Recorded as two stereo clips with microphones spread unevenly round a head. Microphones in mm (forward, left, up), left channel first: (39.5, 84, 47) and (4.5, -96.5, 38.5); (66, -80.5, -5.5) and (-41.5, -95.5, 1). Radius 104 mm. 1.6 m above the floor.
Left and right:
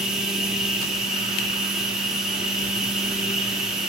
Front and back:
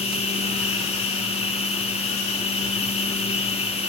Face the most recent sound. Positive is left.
turn(degrees=-10)